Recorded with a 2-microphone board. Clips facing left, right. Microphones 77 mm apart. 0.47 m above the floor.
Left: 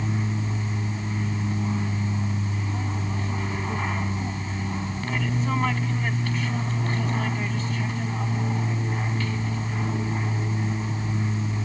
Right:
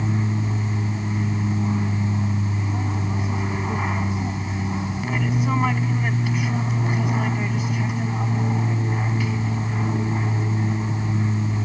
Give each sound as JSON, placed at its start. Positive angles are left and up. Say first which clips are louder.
{"t": 0.0, "sound": "an aircraft", "louder": "right 3 dB", "side_deg": -10}